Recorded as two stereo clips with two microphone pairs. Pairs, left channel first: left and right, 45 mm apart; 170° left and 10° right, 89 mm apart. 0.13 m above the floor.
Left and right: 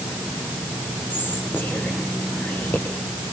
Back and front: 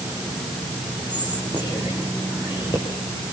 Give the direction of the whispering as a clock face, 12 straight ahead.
7 o'clock.